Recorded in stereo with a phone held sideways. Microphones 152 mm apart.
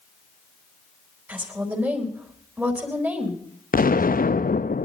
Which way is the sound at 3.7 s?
70° left (ahead or behind).